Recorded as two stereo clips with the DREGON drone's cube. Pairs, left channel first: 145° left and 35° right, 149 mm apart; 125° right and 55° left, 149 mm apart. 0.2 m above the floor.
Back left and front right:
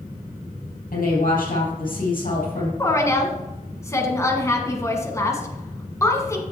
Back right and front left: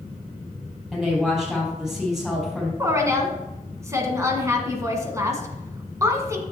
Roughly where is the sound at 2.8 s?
Left.